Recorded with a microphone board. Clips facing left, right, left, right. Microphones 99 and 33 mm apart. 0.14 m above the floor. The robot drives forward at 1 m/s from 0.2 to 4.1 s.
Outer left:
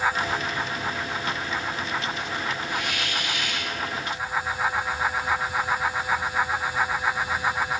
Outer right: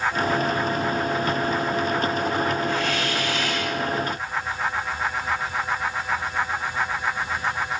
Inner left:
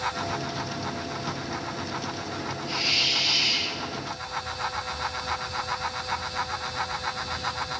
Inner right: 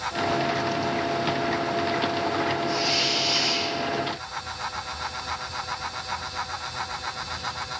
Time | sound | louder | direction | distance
2.7 | a hiss | outer right 5 dB, inner right 1 dB | 15° left (ahead or behind) | 6 m